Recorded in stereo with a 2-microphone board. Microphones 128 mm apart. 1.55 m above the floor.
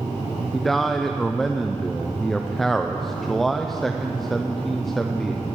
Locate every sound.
0.5 s a man speaking: centre (ahead or behind), 0.7 m